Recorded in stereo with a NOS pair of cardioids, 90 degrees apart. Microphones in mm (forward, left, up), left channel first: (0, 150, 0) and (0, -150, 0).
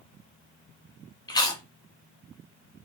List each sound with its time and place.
1.3 s chewing: 15° left, 0.9 m